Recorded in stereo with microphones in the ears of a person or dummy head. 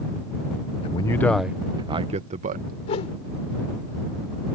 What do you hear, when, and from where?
0.8 s a man speaking: 40° left (ahead or behind); by 2.8 s 40° right (ahead or behind)
2.9 s a whoosh: 45° left (ahead or behind)